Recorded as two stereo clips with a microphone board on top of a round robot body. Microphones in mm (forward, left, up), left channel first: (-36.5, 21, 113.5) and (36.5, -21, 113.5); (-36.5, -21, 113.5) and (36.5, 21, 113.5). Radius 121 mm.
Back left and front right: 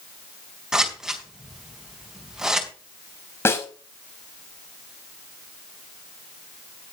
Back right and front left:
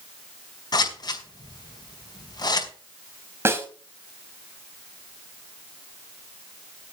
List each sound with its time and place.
0.7 s scissors: 115° right, 5 m
3.5 s a snare drum: 90° left, 4 m